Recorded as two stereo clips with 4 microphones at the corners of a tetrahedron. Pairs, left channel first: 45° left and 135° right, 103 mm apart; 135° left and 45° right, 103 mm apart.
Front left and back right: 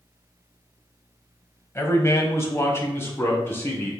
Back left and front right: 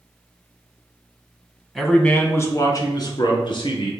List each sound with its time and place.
1.8 s a man speaking: 45° left, 1.1 m; by 3.9 s 110° left, 2.5 m